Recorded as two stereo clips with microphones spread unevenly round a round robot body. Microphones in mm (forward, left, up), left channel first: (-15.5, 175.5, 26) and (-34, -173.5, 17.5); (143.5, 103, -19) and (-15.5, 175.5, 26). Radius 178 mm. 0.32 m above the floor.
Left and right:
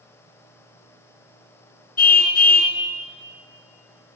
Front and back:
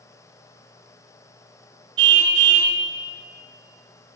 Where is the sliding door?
I don't hear a sliding door.